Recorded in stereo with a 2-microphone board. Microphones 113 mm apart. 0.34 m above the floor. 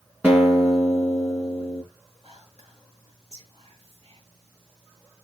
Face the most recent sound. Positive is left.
turn(degrees=-60)  # may be behind; listen again after turning